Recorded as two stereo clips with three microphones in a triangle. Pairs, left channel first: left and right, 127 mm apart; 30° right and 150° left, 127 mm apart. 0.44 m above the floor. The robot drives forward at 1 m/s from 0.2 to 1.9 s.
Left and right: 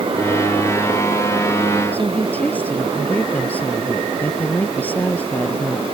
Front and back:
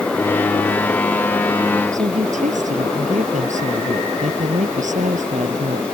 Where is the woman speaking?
165° left.